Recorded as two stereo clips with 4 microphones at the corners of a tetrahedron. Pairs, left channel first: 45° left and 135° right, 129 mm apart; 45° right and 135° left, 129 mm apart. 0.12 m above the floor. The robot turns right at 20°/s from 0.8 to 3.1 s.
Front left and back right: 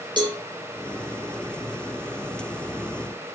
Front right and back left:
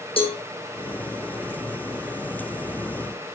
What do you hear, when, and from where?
0.2 s a cowbell: 85° right, 3 m